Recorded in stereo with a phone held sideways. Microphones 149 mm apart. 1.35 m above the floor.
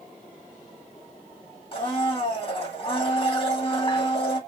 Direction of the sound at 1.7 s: 40° left (ahead or behind).